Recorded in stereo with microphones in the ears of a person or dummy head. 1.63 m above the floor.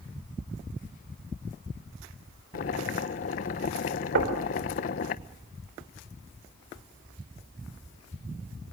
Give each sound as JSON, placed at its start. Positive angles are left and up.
{"t": 2.5, "sound": "boiling", "side_deg": 45, "distance_m": 1.0}
{"t": 4.2, "sound": "knocking", "side_deg": -55, "distance_m": 4.5}